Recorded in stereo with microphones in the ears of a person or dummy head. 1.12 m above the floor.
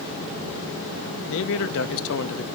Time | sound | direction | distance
1.3 | a man speaking | 70° left (ahead or behind) | 1.0 m